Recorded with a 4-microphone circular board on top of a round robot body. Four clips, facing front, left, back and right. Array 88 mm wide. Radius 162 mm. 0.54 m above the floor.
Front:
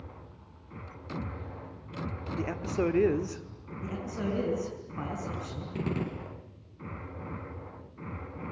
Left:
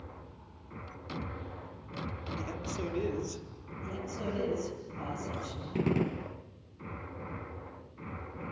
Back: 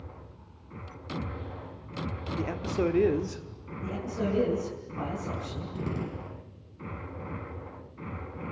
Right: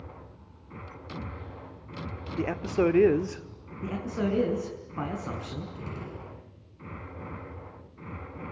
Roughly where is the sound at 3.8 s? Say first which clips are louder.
Right 7 dB, back 3 dB; right.